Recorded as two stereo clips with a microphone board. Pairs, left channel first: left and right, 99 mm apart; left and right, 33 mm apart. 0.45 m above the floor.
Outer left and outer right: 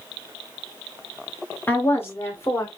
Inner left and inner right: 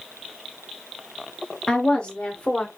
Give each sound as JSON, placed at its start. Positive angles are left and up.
{"t": 1.7, "sound": "a woman speaking", "side_deg": 20, "distance_m": 1.1}